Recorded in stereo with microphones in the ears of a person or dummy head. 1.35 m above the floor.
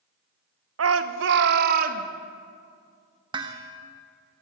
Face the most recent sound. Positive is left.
turn(degrees=-20)  # may be behind; listen again after turning